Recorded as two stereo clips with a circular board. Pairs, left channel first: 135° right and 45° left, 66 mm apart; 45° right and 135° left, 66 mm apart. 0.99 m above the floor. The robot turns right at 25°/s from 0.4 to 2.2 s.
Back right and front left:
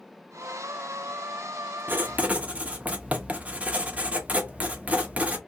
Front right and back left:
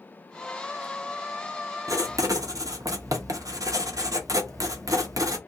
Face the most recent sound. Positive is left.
turn(degrees=110)